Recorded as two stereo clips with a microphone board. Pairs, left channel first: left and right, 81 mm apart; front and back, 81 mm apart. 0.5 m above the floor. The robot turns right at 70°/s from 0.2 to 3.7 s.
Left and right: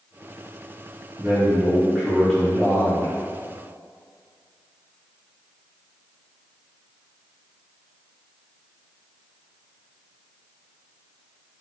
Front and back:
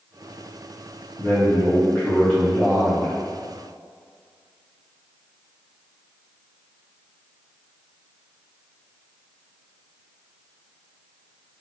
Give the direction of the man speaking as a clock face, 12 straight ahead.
1 o'clock.